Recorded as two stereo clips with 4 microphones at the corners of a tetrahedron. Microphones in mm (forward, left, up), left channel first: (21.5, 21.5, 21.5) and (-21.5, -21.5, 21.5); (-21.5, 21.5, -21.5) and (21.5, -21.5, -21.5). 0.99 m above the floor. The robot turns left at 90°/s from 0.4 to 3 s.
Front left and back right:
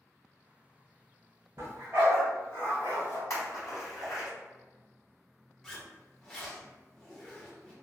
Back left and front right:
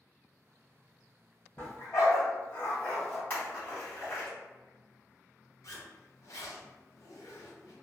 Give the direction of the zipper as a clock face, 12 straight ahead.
8 o'clock.